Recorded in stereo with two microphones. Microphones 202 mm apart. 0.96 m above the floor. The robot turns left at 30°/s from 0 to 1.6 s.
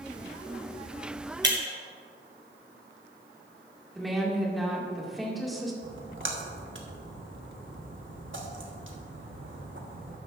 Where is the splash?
75° right (ahead or behind), 1.3 m.